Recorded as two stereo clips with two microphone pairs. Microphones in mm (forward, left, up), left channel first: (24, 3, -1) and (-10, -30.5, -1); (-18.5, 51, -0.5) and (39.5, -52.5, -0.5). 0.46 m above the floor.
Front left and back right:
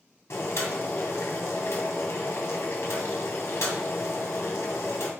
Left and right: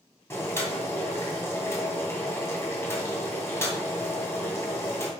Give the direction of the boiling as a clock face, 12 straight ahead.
10 o'clock.